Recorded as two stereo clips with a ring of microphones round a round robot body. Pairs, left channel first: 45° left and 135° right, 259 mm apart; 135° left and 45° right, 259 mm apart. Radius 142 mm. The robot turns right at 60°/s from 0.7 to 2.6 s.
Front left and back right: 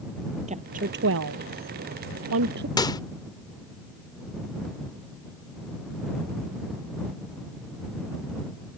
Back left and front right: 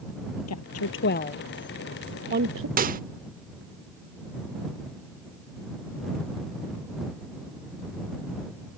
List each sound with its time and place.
0.5 s a woman speaking: 160° left; by 2.7 s 85° right
2.8 s a microwave: 20° right